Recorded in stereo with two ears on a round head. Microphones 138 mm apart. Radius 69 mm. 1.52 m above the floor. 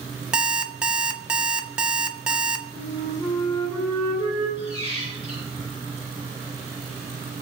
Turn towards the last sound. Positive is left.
turn(degrees=80)